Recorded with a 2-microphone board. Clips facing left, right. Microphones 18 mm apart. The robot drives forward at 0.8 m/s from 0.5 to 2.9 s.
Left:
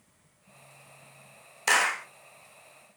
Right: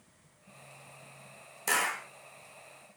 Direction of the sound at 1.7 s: 40° left (ahead or behind).